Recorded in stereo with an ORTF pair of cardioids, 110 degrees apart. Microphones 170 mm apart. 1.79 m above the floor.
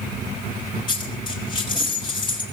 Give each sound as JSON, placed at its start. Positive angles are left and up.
{"t": 0.9, "sound": "a dropped coin", "azimuth_deg": 25, "distance_m": 4.5}